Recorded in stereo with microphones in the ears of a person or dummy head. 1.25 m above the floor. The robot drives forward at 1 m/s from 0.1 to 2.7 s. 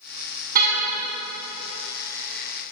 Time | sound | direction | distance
0.6 | a car horn | 45° right (ahead or behind) | 6.5 m